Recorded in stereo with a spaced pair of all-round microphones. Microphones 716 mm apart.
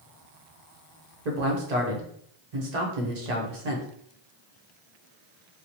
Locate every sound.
1.2 s a man speaking: 65° right (ahead or behind), 0.9 m